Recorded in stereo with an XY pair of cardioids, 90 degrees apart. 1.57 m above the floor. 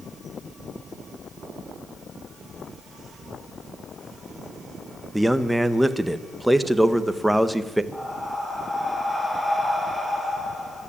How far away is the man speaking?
About 1.5 m.